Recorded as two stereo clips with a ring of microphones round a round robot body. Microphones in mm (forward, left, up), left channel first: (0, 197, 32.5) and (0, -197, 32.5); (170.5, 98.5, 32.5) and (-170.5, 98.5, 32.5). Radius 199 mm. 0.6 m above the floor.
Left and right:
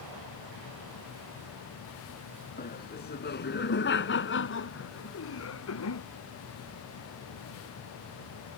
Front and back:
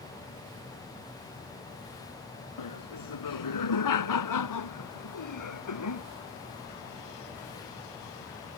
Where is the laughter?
20° left; by 6.0 s 35° left.